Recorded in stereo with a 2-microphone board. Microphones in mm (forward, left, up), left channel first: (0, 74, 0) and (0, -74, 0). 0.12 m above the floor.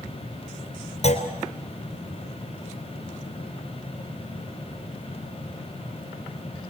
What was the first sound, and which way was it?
A clunk, 50° left (ahead or behind).